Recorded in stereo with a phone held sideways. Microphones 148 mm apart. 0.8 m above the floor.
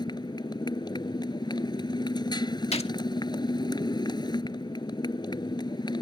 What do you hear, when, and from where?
0.0 s a motorcycle: 30° left (ahead or behind)
2.7 s a gunshot: 45° left (ahead or behind)